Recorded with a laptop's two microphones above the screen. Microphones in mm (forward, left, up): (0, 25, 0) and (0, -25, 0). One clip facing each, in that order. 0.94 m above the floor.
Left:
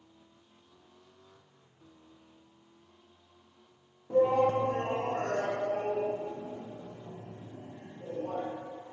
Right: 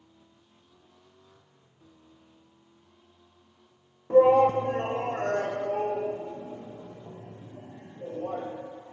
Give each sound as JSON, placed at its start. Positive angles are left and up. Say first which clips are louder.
{"t": 4.1, "sound": "a shout", "louder": "right 7 dB", "side_deg": -60, "distance_m": 1.1}